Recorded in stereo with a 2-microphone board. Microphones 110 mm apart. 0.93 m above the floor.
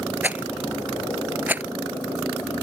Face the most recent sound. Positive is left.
turn(degrees=-15)  # may be behind; listen again after turning